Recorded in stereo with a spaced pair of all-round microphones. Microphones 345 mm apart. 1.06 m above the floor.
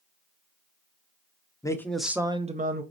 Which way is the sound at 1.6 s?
10° left (ahead or behind).